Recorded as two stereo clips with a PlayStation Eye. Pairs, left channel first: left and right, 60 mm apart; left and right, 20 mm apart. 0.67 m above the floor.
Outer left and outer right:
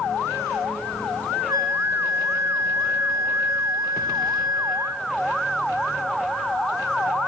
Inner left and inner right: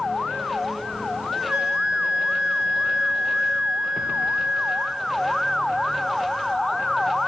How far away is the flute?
About 1.2 m.